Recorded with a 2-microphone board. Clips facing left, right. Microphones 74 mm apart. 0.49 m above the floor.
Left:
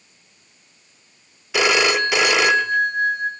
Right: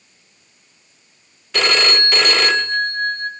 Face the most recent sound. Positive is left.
turn(degrees=10)  # may be behind; listen again after turning